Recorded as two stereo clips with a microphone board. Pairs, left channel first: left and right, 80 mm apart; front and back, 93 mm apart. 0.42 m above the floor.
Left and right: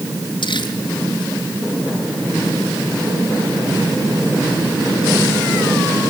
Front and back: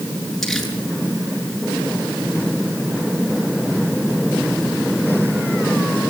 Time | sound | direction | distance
0.4 | crumpling | 90° left | 7.5 m